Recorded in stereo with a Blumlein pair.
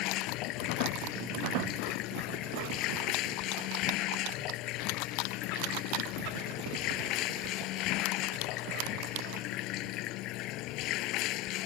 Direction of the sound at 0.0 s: 40° left.